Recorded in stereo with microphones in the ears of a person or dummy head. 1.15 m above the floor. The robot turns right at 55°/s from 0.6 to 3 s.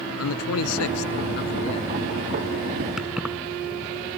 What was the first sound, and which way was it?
A man speaking, 85° left.